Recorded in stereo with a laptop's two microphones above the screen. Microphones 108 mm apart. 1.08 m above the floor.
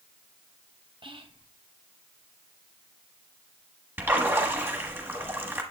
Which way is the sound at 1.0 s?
50° right (ahead or behind).